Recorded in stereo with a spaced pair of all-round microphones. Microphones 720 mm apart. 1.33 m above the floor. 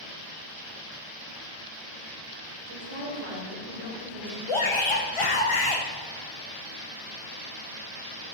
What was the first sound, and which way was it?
A woman speaking, 45° right (ahead or behind).